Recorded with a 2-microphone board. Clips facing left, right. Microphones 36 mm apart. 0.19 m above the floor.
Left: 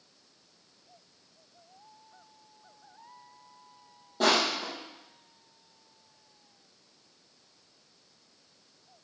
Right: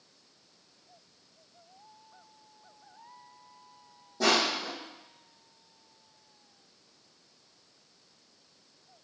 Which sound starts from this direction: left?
Crushing, at 4.2 s.